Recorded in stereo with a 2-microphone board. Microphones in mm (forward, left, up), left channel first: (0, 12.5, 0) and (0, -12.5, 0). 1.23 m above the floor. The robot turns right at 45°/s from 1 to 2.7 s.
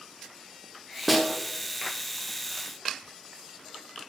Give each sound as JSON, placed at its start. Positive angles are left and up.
{"t": 1.1, "sound": "a snare drum", "side_deg": -5, "distance_m": 0.8}